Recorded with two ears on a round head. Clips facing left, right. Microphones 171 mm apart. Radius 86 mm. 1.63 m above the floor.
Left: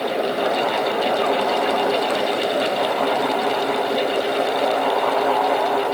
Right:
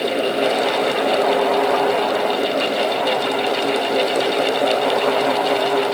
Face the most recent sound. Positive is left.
No sound to turn to.